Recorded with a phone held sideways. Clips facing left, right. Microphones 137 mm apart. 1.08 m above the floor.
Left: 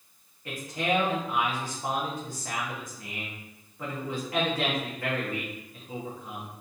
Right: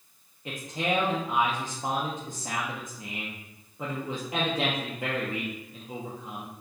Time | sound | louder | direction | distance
0.5 | a man speaking | left 1 dB | 20° right (ahead or behind) | 0.7 m